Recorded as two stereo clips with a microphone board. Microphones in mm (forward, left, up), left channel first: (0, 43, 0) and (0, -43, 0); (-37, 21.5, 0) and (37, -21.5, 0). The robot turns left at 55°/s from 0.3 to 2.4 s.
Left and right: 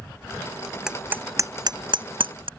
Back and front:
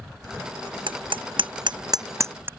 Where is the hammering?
10° right; by 2.5 s 95° right.